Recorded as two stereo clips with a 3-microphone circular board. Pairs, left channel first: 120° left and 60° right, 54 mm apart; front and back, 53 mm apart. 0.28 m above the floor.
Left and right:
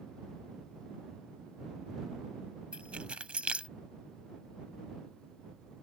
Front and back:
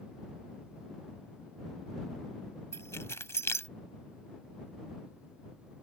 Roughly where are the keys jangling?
Ahead.